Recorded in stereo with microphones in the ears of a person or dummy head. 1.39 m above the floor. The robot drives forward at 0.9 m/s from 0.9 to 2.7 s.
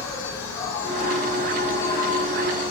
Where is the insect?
20° left (ahead or behind), 4.5 m; by 2.7 s 30° left (ahead or behind), 3 m.